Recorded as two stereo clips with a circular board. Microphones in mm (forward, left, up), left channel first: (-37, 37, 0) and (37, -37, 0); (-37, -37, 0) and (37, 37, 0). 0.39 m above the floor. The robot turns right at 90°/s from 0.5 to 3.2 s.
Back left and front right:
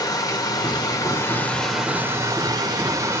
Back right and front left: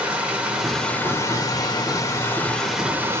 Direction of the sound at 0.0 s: 115° left.